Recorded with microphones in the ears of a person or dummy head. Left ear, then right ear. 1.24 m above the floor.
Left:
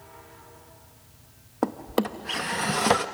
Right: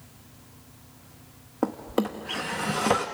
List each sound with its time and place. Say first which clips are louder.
1.6 s a drawer: left 1 dB; 15° left (ahead or behind), 0.7 m